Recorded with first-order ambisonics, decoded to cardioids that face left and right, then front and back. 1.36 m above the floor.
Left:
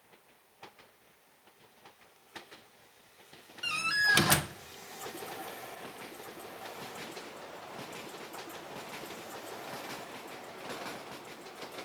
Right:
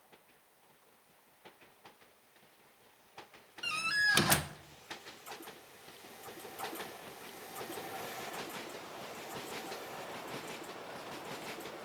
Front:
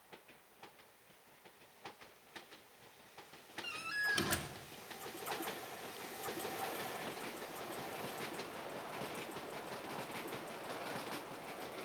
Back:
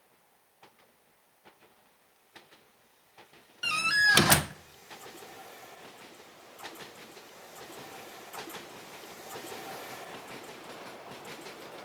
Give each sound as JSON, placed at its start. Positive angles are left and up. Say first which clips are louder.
{"t": 3.6, "sound": "a door slam", "louder": "left 3 dB, back 14 dB", "azimuth_deg": 175, "distance_m": 0.5}